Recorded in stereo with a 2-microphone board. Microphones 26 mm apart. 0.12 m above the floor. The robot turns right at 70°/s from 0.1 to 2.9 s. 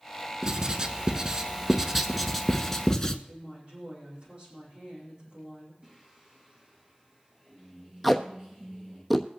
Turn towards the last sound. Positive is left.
turn(degrees=0)  # may be behind; listen again after turning